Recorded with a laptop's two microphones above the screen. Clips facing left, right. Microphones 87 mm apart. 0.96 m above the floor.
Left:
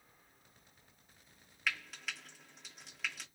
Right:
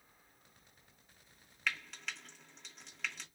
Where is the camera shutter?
I don't hear a camera shutter.